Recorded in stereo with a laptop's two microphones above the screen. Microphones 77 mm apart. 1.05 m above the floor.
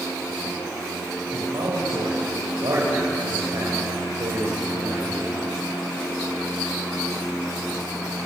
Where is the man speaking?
80° right, 5.5 m.